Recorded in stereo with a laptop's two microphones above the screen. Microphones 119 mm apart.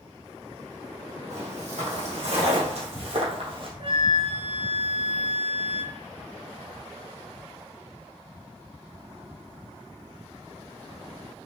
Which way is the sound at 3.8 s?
50° right (ahead or behind).